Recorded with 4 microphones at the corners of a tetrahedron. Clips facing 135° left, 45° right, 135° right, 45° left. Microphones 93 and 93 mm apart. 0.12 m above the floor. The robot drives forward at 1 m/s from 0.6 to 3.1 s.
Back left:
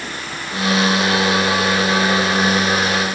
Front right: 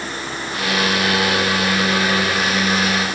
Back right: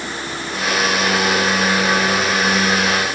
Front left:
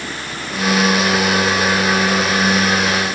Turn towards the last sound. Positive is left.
No sound to turn to.